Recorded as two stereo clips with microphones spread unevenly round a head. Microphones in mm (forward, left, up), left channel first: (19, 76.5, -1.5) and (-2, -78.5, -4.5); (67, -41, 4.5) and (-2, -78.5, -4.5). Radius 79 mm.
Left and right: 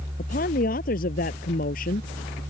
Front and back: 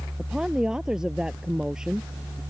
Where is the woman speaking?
120° left.